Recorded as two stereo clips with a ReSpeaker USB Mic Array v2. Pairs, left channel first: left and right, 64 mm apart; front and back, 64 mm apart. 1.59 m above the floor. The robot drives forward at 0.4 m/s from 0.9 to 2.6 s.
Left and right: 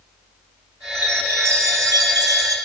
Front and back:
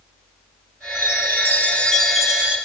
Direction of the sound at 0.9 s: 40° right.